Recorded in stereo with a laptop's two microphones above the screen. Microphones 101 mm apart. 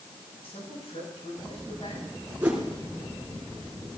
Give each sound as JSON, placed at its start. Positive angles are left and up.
{"t": 0.4, "sound": "a man speaking", "side_deg": 75, "distance_m": 9.0}
{"t": 2.4, "sound": "a whoosh", "side_deg": -15, "distance_m": 3.0}